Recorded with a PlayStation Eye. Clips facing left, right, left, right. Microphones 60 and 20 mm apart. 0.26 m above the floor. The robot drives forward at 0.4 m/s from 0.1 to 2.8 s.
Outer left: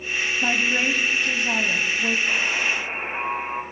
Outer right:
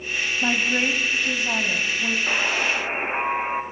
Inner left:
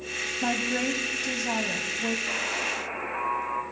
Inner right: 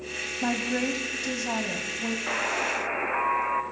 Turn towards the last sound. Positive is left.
turn(degrees=-65)  # may be behind; listen again after turning